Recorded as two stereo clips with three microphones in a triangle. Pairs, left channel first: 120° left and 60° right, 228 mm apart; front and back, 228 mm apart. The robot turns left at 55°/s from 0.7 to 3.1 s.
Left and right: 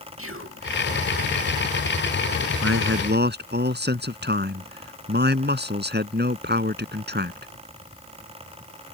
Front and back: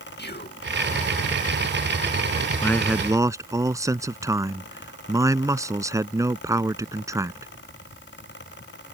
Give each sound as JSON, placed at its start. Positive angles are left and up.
{"t": 0.2, "sound": "whispering", "azimuth_deg": -40}
{"t": 2.6, "sound": "a man speaking", "azimuth_deg": -75}